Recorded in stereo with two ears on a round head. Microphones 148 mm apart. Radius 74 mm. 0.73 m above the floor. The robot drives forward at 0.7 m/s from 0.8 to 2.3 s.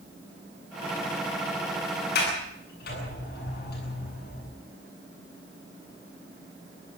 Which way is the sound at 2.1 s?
65° left (ahead or behind).